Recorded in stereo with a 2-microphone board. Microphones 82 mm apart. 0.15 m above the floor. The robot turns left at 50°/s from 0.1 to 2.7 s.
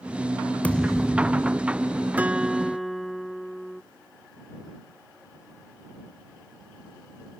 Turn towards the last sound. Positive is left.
turn(degrees=0)  # may be behind; listen again after turning